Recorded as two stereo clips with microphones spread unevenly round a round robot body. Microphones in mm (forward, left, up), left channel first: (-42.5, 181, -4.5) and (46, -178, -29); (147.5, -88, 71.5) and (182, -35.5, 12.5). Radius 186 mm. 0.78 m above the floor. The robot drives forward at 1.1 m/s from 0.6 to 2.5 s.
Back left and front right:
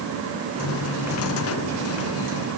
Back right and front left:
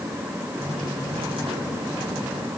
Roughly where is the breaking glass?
I don't hear breaking glass.